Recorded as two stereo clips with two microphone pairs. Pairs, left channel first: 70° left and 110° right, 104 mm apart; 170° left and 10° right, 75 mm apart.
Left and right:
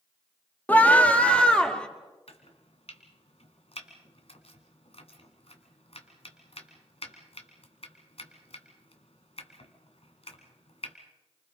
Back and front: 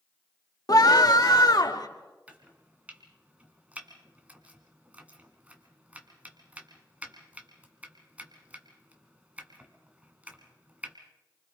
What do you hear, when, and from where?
0.7 s a scream: 140° left, 1.6 m; by 1.9 s 150° left, 2.5 m
2.3 s chopping: 60° left, 2 m